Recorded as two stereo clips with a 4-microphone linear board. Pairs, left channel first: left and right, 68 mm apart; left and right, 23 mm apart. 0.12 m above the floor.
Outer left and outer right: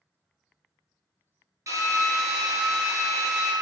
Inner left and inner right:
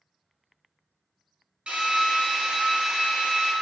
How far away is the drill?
About 1.1 m.